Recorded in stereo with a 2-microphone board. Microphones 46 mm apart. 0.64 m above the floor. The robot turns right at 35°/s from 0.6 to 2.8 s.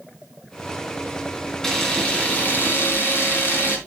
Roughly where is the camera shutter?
Ahead.